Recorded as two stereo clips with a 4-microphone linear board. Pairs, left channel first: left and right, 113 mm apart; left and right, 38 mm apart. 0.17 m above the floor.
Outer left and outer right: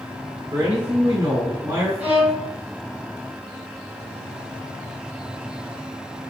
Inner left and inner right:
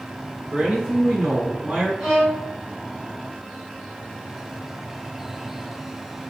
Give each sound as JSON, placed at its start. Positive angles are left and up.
{"t": 0.5, "sound": "a man speaking", "side_deg": -25, "distance_m": 2.0}
{"t": 2.0, "sound": "a violin", "side_deg": -10, "distance_m": 1.1}